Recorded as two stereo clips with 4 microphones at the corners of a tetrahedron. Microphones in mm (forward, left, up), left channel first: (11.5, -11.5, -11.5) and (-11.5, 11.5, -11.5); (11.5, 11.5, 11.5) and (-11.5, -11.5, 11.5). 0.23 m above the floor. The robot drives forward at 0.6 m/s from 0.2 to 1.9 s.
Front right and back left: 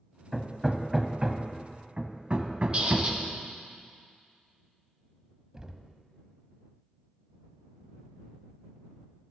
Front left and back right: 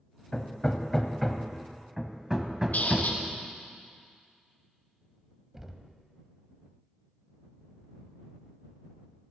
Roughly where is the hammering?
Ahead left.